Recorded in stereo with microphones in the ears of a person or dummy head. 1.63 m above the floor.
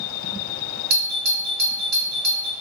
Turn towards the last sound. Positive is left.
turn(degrees=-45)  # may be behind; listen again after turning